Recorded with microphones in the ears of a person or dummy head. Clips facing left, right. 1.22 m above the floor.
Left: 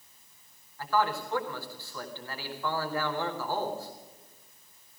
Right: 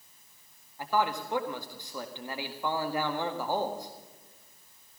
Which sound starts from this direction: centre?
A man speaking, at 0.8 s.